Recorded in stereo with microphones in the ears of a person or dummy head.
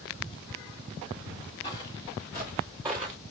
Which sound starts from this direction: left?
Footsteps, at 1.6 s.